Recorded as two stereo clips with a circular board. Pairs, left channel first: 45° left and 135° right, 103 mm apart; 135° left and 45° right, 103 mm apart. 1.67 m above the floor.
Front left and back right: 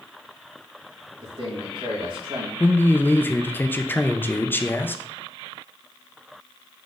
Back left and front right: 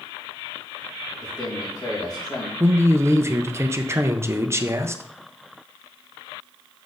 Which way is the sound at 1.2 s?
175° right.